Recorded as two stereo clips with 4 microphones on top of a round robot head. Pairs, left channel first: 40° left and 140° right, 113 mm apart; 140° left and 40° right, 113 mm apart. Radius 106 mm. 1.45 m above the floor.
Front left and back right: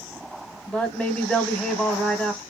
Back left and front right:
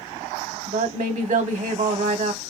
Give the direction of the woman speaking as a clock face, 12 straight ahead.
2 o'clock.